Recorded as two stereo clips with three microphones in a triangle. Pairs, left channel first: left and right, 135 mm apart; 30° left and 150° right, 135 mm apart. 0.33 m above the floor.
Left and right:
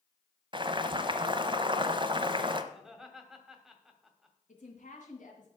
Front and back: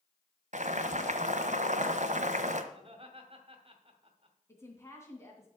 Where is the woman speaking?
100° left, 3 m.